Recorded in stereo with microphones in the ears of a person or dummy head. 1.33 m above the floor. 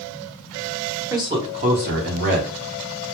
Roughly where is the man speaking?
Centre.